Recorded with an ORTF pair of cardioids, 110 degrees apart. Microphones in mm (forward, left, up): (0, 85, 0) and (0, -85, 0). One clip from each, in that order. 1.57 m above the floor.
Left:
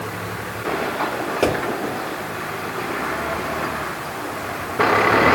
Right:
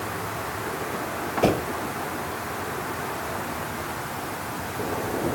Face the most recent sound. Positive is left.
turn(degrees=70)